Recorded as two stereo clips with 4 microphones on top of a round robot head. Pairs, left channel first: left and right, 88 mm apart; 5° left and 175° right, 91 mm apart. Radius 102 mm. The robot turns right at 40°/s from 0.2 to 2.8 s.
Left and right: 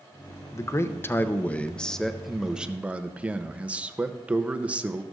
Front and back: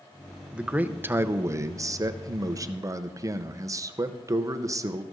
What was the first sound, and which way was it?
A man speaking, 115° left.